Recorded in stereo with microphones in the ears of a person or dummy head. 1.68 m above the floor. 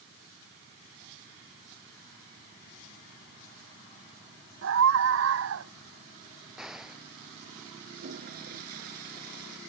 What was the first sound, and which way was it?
A scream, 65° right (ahead or behind).